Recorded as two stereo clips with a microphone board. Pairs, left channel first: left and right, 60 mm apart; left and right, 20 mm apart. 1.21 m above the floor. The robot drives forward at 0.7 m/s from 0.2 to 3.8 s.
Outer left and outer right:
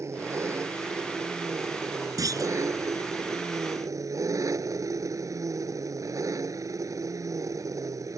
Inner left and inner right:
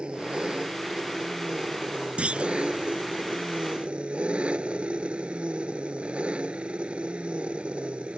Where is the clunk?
75° right (ahead or behind).